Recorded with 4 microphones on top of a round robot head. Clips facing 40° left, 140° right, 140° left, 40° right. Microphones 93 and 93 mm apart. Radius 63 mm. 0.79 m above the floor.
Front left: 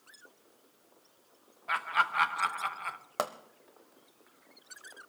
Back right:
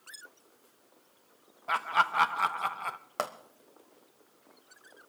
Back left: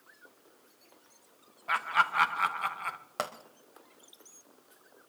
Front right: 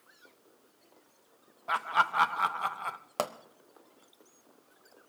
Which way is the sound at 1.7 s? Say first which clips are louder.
Back right 2 dB, even; 95° right.